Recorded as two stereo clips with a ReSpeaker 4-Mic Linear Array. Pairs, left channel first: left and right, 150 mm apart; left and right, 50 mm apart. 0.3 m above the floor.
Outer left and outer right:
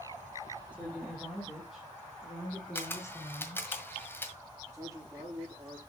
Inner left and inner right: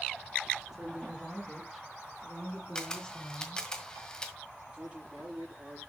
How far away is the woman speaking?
About 6 m.